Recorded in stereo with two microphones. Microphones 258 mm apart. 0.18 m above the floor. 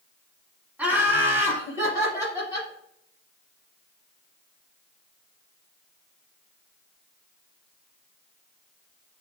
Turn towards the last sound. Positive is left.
turn(degrees=-15)  # may be behind; listen again after turning